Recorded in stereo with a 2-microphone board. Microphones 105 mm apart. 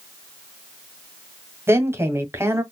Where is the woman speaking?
25° right (ahead or behind), 1.4 m.